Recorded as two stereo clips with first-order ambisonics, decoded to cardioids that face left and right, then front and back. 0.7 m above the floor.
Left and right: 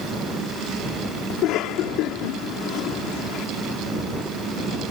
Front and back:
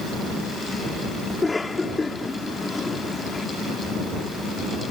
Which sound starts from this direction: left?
A cough, at 1.3 s.